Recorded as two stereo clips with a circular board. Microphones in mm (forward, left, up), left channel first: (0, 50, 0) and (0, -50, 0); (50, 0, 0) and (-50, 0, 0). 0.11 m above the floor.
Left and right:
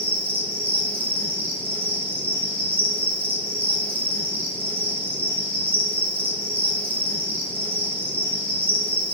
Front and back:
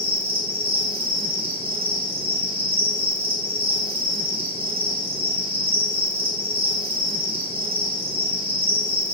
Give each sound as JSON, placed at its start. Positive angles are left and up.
{"t": 0.0, "sound": "an insect", "azimuth_deg": -160, "distance_m": 0.9}